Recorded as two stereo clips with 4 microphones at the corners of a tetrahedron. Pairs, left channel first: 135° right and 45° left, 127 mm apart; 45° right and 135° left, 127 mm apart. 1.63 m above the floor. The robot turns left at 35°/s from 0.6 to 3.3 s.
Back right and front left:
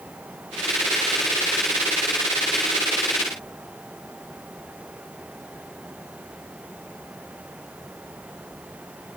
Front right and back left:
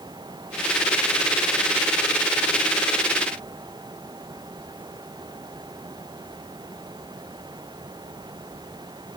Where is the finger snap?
No finger snap in this recording.